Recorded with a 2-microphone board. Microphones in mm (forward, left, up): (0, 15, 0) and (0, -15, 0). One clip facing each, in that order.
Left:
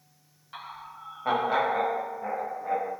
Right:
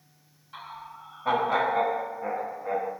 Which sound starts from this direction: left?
Laughter, at 0.5 s.